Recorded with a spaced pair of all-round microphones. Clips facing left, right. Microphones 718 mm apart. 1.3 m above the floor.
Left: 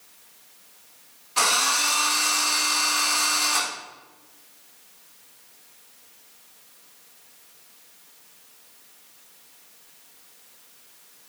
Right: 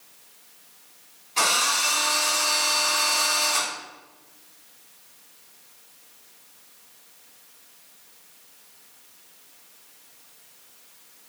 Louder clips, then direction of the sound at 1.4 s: Even; 45° left (ahead or behind).